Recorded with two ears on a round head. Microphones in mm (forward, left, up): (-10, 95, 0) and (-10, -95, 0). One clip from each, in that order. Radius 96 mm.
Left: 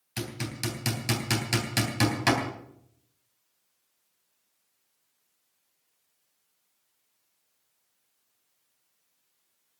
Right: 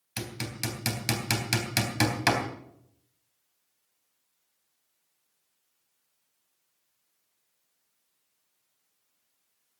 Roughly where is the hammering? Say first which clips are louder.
Even; right.